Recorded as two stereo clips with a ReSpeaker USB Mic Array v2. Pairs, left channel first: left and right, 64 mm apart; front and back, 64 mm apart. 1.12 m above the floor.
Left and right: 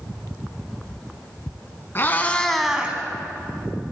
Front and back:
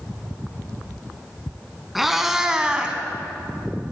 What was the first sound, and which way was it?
A cat meowing, 95° left.